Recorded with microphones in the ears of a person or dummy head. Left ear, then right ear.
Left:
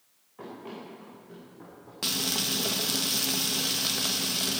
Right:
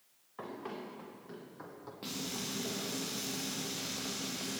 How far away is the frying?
About 0.9 m.